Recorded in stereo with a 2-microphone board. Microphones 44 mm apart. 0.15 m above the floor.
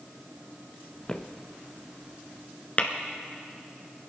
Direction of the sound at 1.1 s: 15° left (ahead or behind).